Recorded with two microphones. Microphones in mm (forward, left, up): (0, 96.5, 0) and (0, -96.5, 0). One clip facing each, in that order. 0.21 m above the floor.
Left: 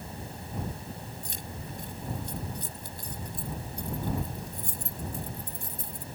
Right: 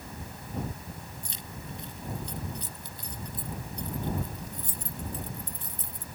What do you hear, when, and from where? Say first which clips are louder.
1.2 s keys jangling: left 2 dB; 50° left (ahead or behind)